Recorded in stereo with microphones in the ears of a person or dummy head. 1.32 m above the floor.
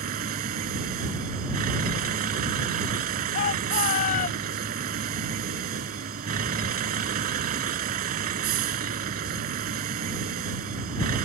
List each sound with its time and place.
0.0 s a vehicle: 50° right (ahead or behind)
3.3 s a shout: 50° left (ahead or behind)